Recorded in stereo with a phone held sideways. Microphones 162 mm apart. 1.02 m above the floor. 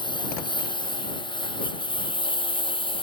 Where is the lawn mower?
30° left (ahead or behind).